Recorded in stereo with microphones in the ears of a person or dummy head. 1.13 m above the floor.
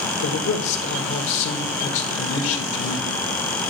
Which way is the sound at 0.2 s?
70° left (ahead or behind).